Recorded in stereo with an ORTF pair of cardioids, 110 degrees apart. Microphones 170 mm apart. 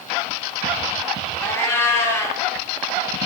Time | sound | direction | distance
1.4 | a cat meowing | 15° left | 1.5 m